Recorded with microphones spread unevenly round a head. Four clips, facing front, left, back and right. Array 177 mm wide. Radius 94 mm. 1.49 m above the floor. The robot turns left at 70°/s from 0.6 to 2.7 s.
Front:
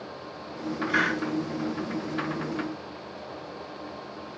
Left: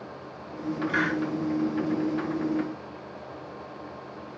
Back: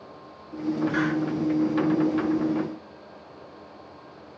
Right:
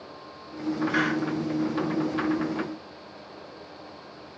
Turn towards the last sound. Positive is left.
turn(degrees=-75)